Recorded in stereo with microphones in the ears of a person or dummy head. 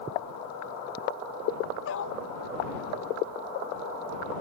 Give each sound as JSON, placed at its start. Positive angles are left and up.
{"t": 1.9, "sound": "a dog barking", "side_deg": 70}